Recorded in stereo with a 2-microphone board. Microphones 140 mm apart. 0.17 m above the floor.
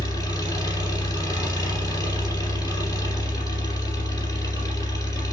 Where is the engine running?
25° left (ahead or behind), 3 m.